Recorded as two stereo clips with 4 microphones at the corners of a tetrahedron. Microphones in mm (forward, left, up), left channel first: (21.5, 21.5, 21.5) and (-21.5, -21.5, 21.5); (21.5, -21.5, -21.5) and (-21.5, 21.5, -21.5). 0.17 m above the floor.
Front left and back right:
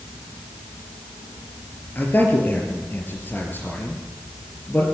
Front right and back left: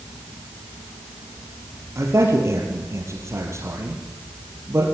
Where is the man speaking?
100° left, 4 m.